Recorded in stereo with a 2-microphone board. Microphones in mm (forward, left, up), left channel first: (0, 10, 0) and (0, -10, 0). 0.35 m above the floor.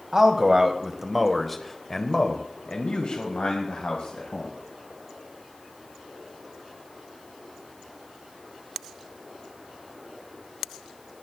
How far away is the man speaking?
About 1.6 m.